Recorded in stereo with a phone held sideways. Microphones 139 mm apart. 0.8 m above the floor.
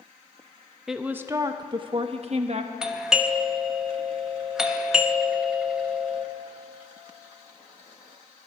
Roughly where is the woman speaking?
Centre.